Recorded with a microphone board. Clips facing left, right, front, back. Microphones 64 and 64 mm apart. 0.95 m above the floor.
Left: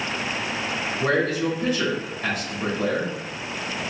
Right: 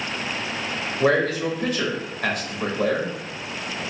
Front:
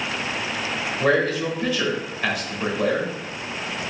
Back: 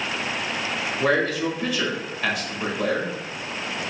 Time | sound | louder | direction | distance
1.0 | a man speaking | right 3 dB, front 1 dB | 95° right | 1.6 m